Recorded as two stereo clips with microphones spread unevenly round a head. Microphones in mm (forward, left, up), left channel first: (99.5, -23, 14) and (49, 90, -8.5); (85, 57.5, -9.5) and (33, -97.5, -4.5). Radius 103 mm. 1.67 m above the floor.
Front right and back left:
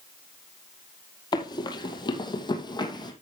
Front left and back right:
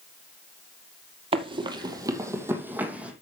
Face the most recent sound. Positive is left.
turn(degrees=-30)